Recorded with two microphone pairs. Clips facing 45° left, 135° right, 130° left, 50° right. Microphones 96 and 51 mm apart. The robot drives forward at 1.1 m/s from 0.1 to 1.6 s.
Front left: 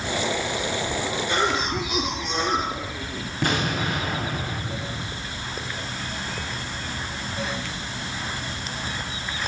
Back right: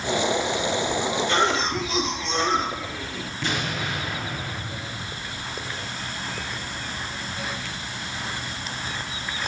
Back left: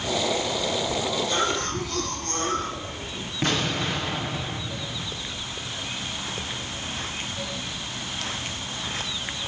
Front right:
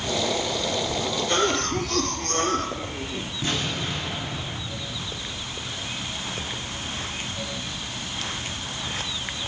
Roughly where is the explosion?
Left.